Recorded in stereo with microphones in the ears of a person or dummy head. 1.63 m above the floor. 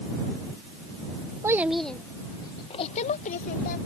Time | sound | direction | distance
1.4 | a child speaking | 15° right (ahead or behind) | ?